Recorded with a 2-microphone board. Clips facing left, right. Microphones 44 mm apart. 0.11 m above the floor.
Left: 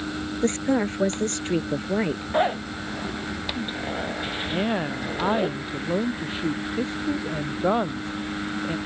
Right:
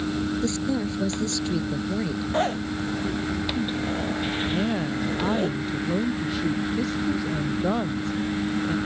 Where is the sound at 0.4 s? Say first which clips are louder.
Left 3 dB; 45° left (ahead or behind).